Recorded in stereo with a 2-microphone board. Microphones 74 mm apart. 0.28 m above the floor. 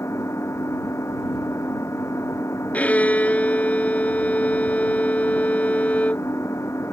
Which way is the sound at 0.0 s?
40° left (ahead or behind).